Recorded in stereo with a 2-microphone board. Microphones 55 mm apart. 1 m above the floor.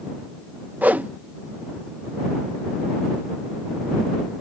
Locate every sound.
0.8 s a whoosh: 30° right (ahead or behind)